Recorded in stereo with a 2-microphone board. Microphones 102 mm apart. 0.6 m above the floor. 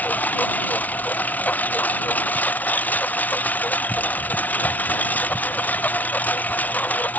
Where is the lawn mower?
15° left (ahead or behind).